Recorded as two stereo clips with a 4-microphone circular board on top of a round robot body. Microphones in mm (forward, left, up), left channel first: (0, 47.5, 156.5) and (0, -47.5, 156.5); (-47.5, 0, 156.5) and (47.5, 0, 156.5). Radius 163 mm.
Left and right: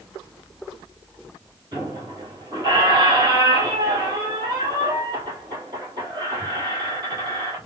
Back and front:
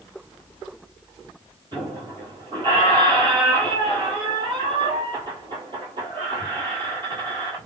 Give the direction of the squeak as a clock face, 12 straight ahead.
1 o'clock.